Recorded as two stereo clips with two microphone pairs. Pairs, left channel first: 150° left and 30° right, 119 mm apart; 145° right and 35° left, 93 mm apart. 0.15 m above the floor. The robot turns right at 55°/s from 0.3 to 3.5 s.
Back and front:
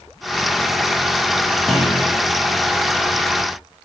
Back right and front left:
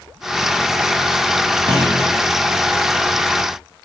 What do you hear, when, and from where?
1.7 s a clunk: 60° left, 3.5 m; by 2.1 s 85° left, 3.5 m